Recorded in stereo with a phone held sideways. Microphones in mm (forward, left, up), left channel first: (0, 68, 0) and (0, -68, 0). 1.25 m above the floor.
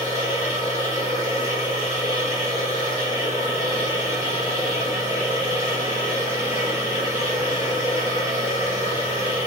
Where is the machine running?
60° left (ahead or behind), 1.7 m.